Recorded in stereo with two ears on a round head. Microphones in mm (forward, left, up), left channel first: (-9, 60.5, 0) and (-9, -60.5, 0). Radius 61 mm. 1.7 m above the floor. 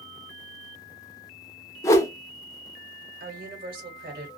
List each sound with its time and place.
1.8 s a whoosh: 20° left (ahead or behind), 0.5 m
3.2 s a woman speaking: 75° right (ahead or behind), 1.2 m